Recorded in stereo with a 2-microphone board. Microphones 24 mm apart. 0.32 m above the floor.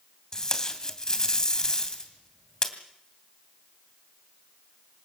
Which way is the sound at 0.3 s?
25° left (ahead or behind).